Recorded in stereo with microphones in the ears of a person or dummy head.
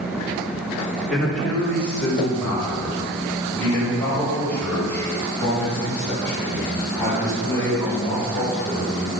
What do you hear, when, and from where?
1.1 s a man speaking: 5° left (ahead or behind), 4.5 m; by 9.1 s 15° left (ahead or behind), 11.5 m